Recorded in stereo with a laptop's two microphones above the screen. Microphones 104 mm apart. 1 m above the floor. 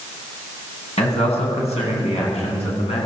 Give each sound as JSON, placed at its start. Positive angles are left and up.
{"t": 1.0, "sound": "a man speaking", "side_deg": 75, "distance_m": 9.0}